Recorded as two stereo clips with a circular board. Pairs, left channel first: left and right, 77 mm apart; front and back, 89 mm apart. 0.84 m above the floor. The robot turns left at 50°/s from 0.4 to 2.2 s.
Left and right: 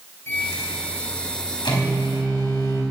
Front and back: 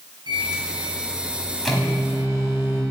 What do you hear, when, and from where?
0.3 s a microwave: 150° left, 5 m; by 2.8 s 60° left, 5 m